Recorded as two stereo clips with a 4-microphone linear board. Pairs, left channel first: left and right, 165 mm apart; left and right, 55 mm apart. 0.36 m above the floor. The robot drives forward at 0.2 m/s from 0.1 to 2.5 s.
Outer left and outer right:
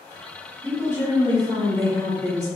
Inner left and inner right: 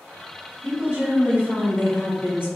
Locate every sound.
0.6 s a woman speaking: 25° right (ahead or behind), 2.0 m